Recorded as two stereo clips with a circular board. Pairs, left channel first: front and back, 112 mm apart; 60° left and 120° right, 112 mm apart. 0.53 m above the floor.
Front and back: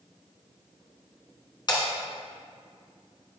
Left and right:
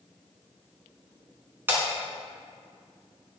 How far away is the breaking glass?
About 3.5 m.